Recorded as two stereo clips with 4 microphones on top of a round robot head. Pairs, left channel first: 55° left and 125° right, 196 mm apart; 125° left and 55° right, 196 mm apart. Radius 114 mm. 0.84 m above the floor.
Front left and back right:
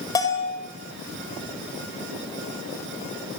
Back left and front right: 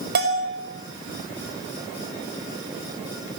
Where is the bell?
15° right, 4.5 m.